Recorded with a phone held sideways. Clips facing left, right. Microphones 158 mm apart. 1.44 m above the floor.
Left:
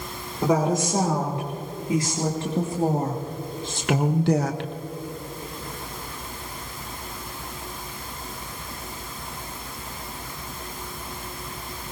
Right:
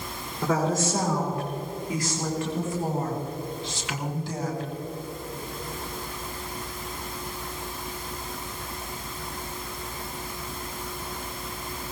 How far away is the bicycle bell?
No bicycle bell in this recording.